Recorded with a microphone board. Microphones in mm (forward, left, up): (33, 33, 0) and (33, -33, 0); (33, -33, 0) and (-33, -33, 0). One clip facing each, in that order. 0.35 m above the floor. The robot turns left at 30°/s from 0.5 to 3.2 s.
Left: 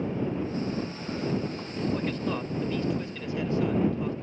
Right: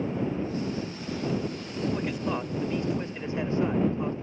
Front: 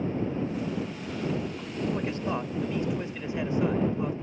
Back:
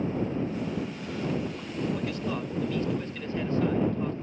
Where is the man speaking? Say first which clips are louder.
Even, front 1 dB; 25° right; by 4.1 s 60° right.